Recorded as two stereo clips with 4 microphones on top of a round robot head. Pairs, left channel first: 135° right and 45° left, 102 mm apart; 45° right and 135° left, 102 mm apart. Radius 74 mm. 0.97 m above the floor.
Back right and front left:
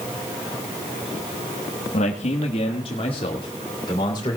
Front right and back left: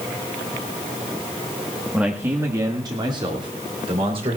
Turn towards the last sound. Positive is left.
turn(degrees=175)